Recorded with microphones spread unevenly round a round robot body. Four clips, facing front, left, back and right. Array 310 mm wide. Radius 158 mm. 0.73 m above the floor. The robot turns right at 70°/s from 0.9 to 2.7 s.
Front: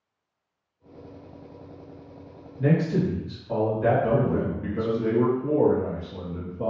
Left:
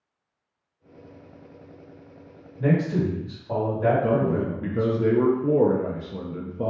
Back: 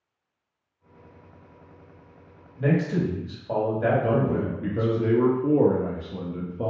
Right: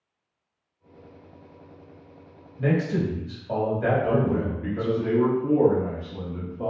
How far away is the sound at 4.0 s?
About 0.5 m.